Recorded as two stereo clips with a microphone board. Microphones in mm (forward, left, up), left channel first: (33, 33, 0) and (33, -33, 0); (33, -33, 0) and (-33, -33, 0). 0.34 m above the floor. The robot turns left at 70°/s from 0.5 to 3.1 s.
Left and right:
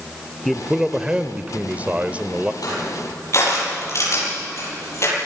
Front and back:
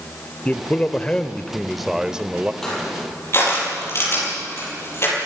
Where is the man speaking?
Straight ahead, 0.8 m; by 2.5 s 140° right, 0.8 m.